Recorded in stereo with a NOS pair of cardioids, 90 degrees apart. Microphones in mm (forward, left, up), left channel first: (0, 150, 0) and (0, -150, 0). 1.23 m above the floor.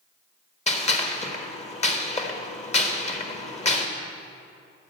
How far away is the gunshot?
About 1.4 m.